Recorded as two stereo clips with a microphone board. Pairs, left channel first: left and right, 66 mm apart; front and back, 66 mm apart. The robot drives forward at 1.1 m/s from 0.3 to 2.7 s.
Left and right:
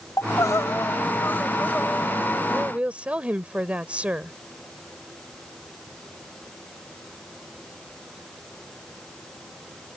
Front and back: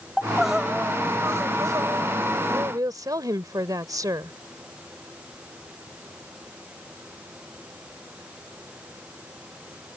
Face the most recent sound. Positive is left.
turn(degrees=-160)